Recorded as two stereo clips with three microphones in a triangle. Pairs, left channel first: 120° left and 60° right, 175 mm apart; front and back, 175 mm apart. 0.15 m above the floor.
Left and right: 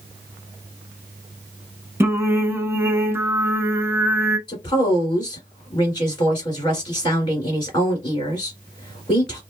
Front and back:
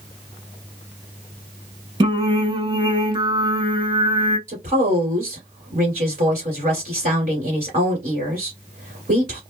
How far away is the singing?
About 0.8 m.